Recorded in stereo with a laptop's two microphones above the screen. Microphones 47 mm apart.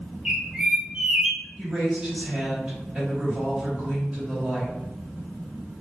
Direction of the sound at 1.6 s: 20° right (ahead or behind).